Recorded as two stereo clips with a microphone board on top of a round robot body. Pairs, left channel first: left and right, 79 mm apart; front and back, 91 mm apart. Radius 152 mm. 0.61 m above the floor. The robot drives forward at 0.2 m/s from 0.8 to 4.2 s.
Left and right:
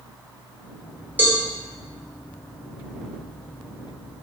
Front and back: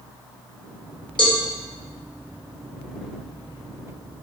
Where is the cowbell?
25° right, 1.0 m.